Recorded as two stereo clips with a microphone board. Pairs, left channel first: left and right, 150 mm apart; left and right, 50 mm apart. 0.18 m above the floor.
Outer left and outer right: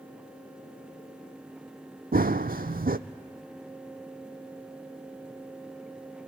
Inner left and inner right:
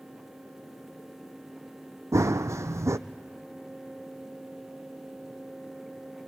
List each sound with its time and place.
2.1 s running footsteps: 80° right, 0.6 m